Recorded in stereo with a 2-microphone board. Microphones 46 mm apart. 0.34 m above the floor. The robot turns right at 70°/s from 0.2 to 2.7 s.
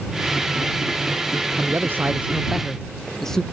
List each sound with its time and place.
1.6 s a man speaking: 70° right; by 3.4 s 10° left